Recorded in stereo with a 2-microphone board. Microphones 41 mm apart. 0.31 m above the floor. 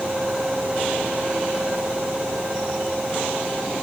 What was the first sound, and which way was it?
Only background noise.